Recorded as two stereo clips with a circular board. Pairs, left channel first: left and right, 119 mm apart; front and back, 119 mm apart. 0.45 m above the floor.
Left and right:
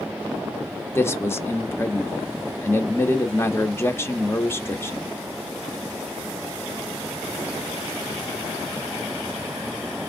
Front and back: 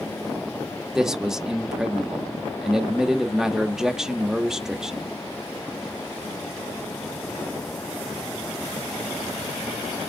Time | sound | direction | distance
0.9 | a man speaking | 100° left | 0.7 m